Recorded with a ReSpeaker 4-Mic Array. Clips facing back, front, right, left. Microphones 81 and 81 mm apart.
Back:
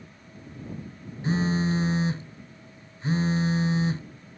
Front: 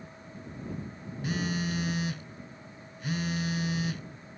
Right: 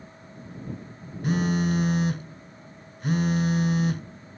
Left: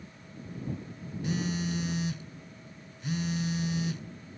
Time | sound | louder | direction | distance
1.2 | a phone buzzing | back 7 dB, right 8 dB | 120° right | ?